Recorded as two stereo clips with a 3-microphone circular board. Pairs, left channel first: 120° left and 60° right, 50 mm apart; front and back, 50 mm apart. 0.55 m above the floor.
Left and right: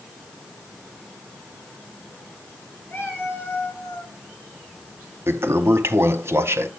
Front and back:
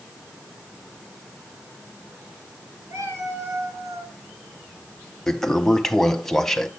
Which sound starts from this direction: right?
A toilet flushing, at 5.3 s.